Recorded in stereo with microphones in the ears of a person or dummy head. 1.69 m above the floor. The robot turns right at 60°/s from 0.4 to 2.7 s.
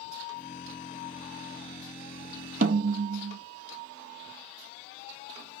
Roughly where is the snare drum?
Right.